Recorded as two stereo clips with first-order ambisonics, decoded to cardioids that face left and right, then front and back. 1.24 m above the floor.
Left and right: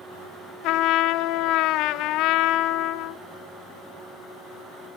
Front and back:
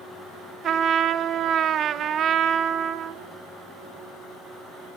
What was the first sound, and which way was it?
A trumpet, 125° left.